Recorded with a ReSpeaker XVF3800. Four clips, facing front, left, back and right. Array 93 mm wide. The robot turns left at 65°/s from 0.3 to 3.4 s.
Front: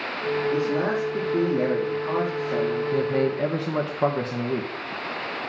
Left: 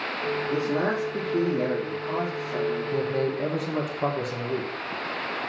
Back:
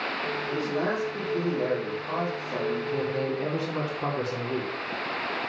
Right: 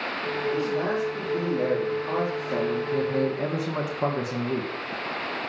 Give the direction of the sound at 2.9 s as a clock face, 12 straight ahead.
12 o'clock.